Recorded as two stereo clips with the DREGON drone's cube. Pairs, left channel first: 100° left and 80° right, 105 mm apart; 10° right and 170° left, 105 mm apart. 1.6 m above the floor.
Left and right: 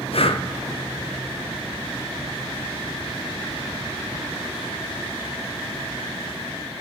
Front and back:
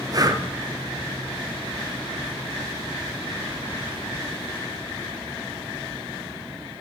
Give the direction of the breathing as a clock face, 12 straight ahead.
8 o'clock.